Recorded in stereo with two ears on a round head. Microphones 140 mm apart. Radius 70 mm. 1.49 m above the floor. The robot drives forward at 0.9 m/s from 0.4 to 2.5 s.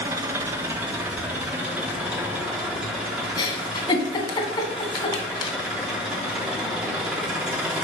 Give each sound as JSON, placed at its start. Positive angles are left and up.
{"t": 0.0, "sound": "an engine running", "side_deg": -15, "distance_m": 1.3}
{"t": 3.4, "sound": "a giggle", "side_deg": 30, "distance_m": 2.5}